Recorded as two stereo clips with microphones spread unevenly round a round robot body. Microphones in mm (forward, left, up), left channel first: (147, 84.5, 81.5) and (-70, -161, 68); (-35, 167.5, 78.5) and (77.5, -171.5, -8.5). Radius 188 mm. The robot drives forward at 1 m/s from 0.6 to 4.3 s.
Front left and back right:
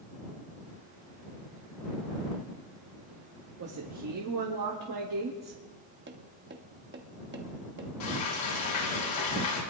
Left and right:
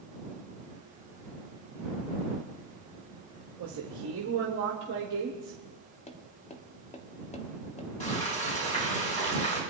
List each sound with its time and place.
3.6 s a woman speaking: 95° right, 1.5 m; by 5.6 s 120° right, 1.7 m
6.1 s tapping: 170° right, 1.3 m
8.0 s frying: 35° left, 7.5 m